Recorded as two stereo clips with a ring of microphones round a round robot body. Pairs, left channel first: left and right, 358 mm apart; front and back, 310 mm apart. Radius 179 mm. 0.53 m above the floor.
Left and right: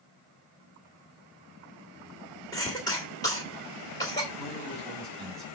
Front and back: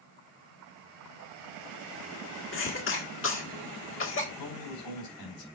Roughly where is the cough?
Ahead.